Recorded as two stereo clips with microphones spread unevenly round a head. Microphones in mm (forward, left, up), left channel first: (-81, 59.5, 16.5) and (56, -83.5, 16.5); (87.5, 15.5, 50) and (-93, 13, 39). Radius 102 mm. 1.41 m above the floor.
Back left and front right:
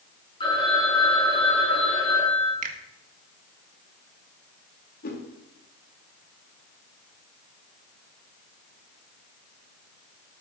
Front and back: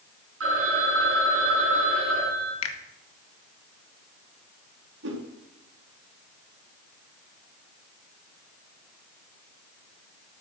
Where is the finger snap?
10° left, 1.8 m.